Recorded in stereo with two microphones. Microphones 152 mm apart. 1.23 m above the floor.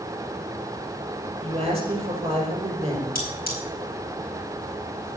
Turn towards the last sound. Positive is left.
turn(degrees=80)